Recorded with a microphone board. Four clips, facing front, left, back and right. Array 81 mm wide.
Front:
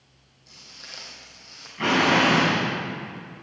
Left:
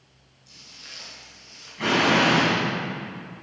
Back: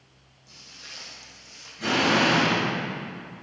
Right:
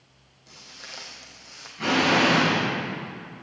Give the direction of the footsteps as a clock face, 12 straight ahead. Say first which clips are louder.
Right 4 dB, front 1 dB; 3 o'clock.